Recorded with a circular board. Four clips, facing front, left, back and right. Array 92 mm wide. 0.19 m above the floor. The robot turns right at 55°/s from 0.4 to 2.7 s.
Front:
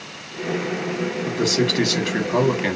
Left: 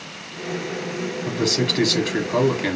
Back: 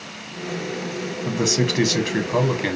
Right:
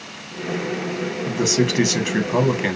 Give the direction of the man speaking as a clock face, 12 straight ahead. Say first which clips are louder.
Right 3 dB, even; 5 o'clock.